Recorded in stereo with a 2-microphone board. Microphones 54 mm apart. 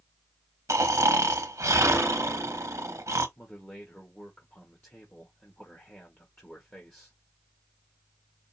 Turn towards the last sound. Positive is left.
turn(degrees=35)  # may be behind; listen again after turning